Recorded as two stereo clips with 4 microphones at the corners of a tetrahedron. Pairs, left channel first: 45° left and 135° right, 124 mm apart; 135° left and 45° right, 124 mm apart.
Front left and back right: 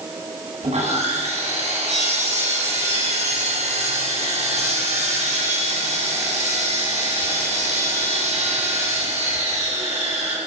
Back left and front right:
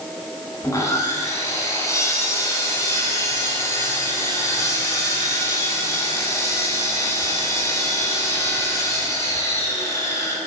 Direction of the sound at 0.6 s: 160° right.